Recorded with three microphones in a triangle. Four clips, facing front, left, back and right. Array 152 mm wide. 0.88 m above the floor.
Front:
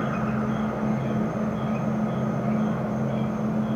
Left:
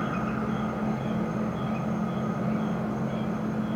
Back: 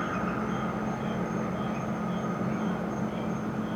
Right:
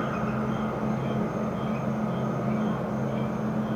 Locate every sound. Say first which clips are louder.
0.0 s an insect: right 1 dB, front 4 dB; 50° right, 4 m